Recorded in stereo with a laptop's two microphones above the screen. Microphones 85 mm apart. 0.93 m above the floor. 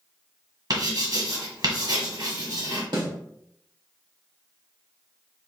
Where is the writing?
50° right (ahead or behind), 1.5 m.